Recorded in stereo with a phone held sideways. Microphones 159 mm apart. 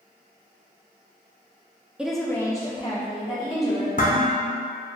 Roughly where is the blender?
No blender in this recording.